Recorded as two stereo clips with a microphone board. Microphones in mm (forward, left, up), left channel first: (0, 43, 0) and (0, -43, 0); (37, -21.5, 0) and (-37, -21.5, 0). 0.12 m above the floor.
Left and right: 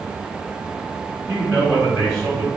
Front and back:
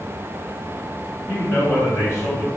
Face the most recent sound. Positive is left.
turn(degrees=15)